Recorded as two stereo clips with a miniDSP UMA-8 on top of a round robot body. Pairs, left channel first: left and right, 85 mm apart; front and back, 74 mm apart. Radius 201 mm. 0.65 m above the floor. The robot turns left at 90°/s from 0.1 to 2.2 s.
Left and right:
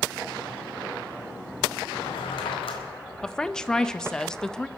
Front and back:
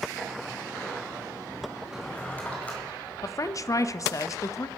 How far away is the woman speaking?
About 0.7 m.